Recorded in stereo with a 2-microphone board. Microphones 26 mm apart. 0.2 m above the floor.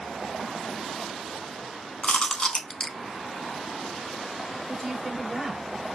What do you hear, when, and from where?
2.0 s chewing: 35° left (ahead or behind), 0.6 m
4.7 s a woman speaking: 10° right (ahead or behind), 3.5 m